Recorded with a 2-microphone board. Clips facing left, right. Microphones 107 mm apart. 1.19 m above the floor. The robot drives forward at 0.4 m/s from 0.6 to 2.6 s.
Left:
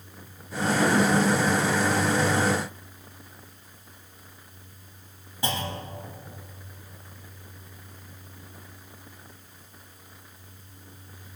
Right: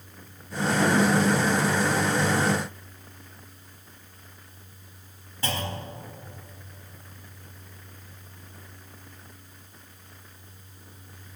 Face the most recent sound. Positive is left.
turn(degrees=15)  # may be behind; listen again after turning